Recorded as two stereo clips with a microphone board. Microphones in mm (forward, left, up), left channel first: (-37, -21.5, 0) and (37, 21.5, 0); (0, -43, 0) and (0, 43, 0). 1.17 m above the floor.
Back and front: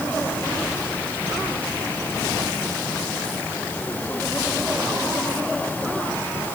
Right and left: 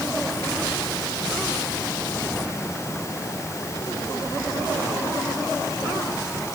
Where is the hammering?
No hammering in this recording.